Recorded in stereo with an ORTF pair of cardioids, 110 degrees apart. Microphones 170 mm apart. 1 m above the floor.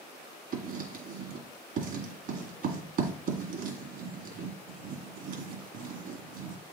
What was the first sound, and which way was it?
Writing, 60° right.